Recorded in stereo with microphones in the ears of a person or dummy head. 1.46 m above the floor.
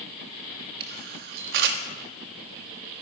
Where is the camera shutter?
55° right (ahead or behind), 1.5 m.